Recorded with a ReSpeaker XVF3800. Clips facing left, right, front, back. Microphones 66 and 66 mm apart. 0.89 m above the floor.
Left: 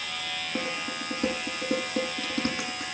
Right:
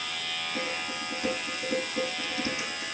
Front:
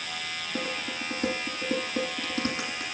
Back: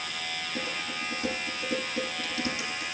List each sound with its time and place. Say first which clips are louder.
0.6 s dishes clattering: left 2 dB, front 3 dB; 45° left, 7 m